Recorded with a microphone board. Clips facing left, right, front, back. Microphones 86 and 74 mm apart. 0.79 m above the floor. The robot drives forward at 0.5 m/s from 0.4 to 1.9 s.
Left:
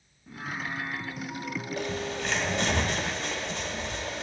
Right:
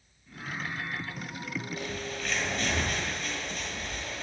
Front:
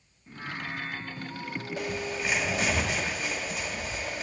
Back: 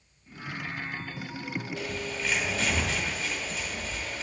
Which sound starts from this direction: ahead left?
Singing, at 0.3 s.